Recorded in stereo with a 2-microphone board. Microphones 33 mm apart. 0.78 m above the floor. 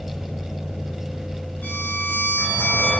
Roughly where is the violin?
Left.